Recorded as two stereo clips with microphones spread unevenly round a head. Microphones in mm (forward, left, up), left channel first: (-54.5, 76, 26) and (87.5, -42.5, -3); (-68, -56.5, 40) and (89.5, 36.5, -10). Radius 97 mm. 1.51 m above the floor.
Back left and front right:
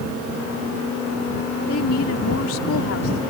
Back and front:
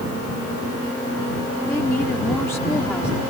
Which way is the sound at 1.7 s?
130° left.